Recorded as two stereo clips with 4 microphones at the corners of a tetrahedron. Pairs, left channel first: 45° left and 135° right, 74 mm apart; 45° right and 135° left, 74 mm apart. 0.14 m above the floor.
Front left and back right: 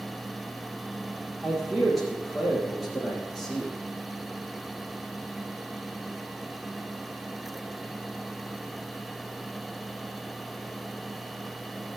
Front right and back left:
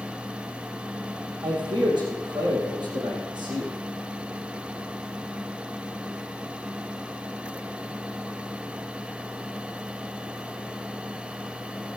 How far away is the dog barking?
No dog barking in this recording.